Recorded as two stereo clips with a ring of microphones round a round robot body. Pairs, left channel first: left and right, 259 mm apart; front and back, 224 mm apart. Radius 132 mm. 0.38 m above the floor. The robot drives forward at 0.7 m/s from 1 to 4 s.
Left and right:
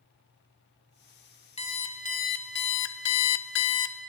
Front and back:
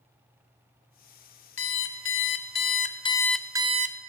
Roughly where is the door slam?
No door slam in this recording.